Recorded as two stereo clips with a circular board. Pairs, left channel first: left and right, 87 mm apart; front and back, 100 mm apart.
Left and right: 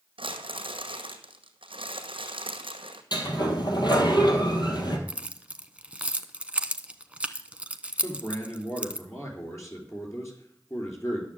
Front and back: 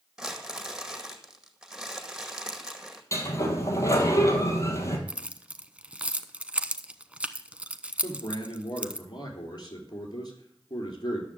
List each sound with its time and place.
0.2 s crumpling: 95° right, 1.9 m
3.1 s a sliding door: 60° left, 2.5 m
5.1 s keys jangling: 130° right, 0.8 m
8.0 s a man speaking: 40° left, 3 m